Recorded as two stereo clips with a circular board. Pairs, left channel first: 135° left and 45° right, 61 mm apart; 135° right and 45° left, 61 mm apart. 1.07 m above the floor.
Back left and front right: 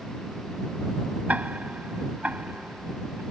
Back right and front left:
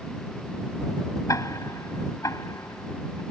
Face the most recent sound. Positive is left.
turn(degrees=-110)